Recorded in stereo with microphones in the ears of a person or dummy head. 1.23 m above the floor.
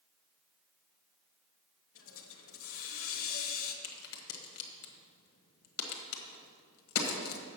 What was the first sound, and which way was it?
A hiss, 65° left (ahead or behind).